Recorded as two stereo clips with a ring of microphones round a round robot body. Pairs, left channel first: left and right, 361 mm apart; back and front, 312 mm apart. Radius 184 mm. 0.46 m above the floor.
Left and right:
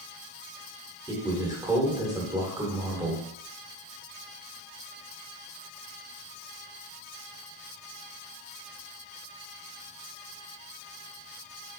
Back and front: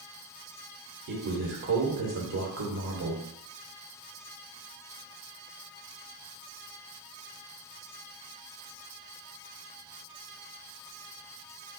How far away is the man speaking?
About 1.4 m.